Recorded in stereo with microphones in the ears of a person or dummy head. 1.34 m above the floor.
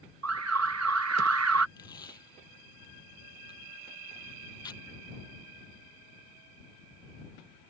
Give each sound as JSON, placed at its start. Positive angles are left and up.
{"t": 0.2, "sound": "an alarm", "side_deg": -75}
{"t": 1.8, "sound": "tape being pulled", "side_deg": 25}